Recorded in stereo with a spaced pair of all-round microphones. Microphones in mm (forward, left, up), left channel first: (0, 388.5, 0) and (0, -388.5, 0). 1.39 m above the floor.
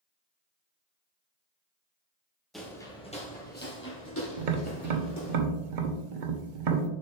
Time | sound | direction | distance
2.5 | footsteps | centre (ahead or behind) | 1.6 m
4.4 | tapping | 75° right (ahead or behind) | 0.9 m